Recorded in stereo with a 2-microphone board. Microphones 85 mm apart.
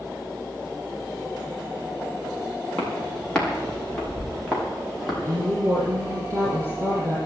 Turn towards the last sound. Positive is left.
turn(degrees=-30)  # may be behind; listen again after turning